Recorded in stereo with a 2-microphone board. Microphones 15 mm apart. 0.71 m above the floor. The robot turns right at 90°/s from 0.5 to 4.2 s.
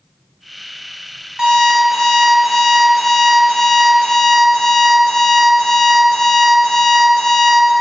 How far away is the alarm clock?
About 1.4 m.